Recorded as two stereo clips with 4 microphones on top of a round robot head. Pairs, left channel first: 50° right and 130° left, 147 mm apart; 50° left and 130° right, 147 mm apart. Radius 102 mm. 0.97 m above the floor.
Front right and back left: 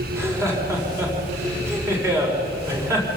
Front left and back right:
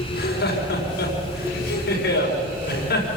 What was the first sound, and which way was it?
Laughter, 55° left.